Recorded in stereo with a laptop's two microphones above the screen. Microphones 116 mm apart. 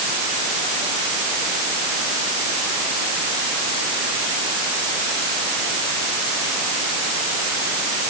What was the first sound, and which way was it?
Only background noise.